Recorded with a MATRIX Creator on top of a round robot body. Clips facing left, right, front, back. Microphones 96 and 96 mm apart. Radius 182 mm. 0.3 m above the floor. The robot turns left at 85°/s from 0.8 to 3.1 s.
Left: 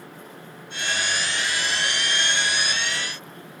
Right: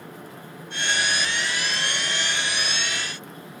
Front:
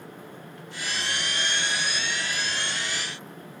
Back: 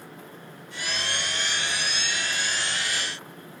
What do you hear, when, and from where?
Only background noise.